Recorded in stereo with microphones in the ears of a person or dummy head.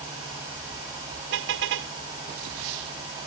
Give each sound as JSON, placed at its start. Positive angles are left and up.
{"t": 1.3, "sound": "a car horn", "side_deg": -70}